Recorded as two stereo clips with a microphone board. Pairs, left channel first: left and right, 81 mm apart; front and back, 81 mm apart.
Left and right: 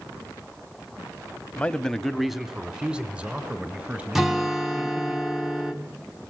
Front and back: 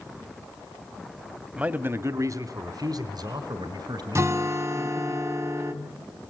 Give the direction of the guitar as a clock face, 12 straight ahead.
6 o'clock.